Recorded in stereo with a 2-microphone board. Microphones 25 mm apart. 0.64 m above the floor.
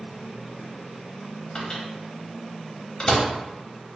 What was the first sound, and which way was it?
A microwave, 35° left (ahead or behind).